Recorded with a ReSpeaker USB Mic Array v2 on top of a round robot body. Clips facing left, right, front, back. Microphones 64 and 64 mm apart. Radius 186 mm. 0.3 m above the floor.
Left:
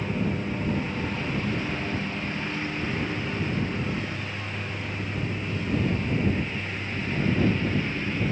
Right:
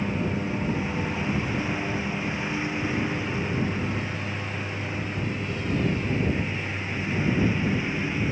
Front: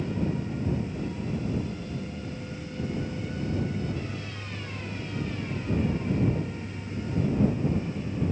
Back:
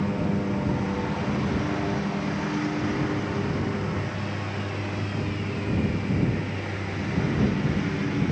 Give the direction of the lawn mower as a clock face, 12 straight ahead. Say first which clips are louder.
Right 1 dB, back 4 dB; 6 o'clock.